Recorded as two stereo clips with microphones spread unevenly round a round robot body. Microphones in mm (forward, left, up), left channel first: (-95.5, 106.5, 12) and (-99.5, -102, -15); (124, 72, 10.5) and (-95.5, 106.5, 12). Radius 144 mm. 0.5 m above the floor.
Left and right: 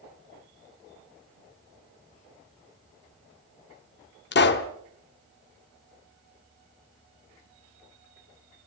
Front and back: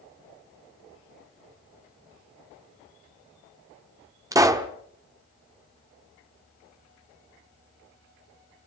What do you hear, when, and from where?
4.3 s a pop: 100° left, 1.4 m